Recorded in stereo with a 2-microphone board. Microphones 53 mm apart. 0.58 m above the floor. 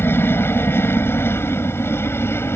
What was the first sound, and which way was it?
A helicopter, 45° left (ahead or behind).